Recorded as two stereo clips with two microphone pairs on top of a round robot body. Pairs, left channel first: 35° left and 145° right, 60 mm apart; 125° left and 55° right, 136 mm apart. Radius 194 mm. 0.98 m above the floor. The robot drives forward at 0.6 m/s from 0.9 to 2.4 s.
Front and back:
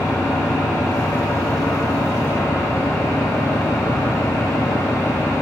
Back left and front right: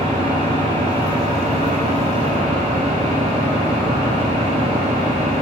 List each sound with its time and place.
0.0 s an engine running: straight ahead, 1.6 m; by 5.4 s 5° right, 0.8 m